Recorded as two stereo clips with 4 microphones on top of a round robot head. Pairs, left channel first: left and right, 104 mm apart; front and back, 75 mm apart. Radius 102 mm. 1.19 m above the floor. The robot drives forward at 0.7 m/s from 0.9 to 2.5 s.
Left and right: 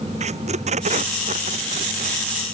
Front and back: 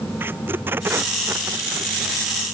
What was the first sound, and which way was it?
Tape being pulled, 110° right.